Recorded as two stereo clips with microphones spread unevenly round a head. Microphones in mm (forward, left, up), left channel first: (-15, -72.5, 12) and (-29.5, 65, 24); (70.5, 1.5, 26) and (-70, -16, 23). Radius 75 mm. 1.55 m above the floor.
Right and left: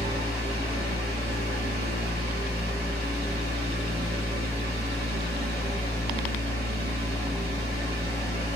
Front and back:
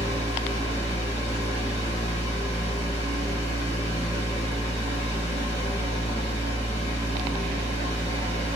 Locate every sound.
0.0 s a fan: 55° left, 1.5 m